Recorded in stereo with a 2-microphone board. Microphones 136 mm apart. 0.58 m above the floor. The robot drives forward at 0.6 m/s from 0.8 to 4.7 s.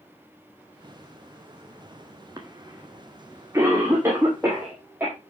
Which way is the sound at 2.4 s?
25° right (ahead or behind).